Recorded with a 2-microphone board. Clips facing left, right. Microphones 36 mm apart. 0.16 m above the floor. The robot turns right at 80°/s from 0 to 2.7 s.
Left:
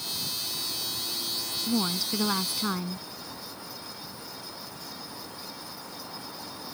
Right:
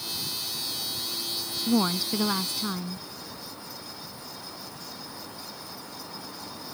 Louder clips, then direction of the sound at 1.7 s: Right 4 dB; 50° right.